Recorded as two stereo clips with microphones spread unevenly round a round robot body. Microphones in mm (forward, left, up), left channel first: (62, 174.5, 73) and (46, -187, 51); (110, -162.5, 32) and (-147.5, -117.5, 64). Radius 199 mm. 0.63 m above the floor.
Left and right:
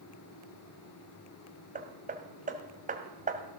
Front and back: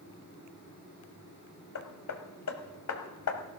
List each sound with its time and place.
1.8 s hammering: 25° right, 1.5 m